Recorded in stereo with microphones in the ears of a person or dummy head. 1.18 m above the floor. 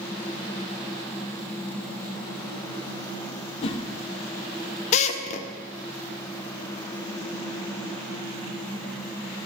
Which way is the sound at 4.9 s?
40° left (ahead or behind).